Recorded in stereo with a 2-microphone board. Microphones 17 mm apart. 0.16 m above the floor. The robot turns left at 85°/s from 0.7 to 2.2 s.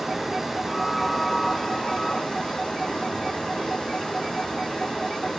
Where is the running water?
150° right, 2.5 m; by 5.4 s 85° left, 2.5 m.